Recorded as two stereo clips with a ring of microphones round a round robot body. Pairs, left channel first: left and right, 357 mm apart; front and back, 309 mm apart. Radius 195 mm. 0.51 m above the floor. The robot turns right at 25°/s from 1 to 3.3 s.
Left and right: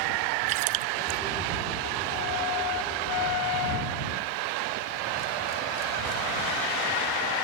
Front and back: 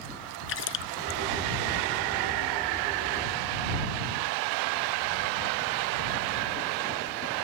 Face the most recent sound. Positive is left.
turn(degrees=0)